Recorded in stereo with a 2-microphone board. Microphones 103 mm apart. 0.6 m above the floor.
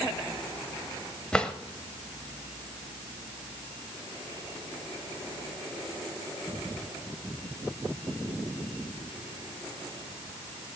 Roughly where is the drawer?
Centre.